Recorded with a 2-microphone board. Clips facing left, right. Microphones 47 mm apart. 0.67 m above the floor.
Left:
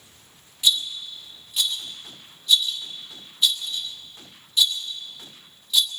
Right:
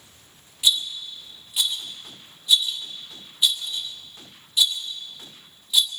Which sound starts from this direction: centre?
A rattle, at 0.6 s.